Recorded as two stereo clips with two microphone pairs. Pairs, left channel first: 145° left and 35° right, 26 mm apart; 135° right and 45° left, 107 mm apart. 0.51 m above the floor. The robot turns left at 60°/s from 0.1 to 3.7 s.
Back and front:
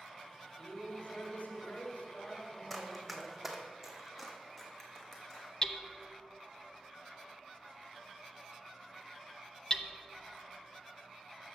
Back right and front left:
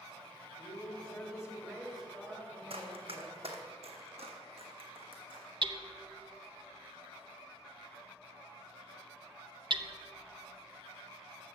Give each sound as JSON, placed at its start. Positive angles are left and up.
{"t": 0.6, "sound": "a man speaking", "azimuth_deg": -145, "distance_m": 2.0}
{"t": 2.7, "sound": "running footsteps", "azimuth_deg": 65, "distance_m": 1.3}
{"t": 5.6, "sound": "hammering", "azimuth_deg": 80, "distance_m": 0.5}